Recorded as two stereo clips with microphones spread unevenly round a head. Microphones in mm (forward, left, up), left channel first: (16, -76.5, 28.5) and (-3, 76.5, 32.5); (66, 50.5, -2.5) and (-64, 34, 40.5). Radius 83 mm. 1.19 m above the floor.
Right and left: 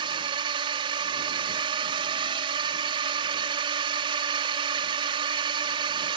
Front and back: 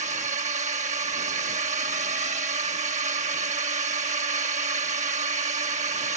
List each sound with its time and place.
0.0 s a drone: 155° left